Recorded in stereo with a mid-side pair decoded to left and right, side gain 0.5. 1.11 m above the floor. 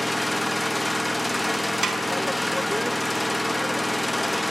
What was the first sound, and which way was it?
An engine running, 5° left.